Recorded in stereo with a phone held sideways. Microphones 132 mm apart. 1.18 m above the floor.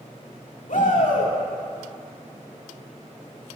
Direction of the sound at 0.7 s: 75° left (ahead or behind).